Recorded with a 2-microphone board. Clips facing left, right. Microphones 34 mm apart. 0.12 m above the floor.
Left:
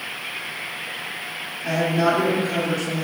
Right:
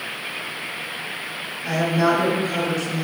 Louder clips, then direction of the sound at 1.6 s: Even; centre (ahead or behind).